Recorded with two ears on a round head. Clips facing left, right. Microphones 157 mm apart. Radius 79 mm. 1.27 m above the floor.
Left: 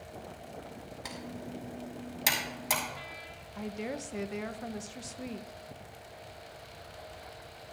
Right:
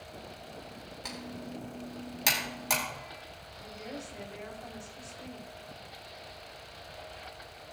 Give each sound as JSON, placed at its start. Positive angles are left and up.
{"t": 1.1, "sound": "typing on a keyboard", "side_deg": 5, "distance_m": 2.5}
{"t": 3.5, "sound": "a woman speaking", "side_deg": 75, "distance_m": 0.6}